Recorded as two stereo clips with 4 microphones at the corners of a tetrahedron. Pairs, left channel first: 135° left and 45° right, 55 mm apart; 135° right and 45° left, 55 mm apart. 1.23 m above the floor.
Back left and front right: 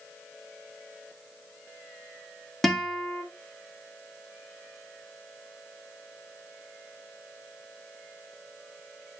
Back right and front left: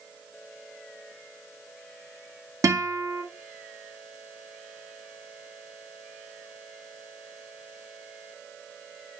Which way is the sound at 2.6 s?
50° left.